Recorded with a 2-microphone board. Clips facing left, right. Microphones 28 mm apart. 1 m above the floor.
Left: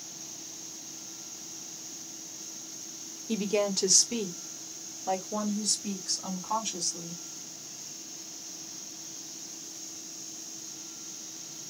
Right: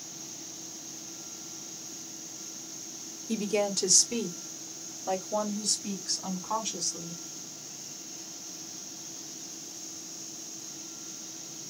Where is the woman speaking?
20° left (ahead or behind), 1.1 m; by 7.2 s centre (ahead or behind), 3 m.